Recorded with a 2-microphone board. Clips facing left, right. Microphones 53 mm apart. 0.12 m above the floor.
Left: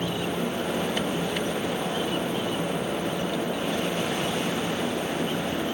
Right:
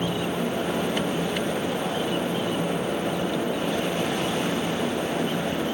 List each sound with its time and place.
Only background noise.